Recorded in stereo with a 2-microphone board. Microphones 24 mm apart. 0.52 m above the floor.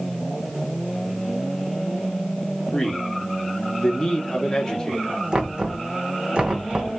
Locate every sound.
2.7 s a man speaking: 25° left (ahead or behind), 1.0 m
5.3 s knocking: 40° right (ahead or behind), 0.7 m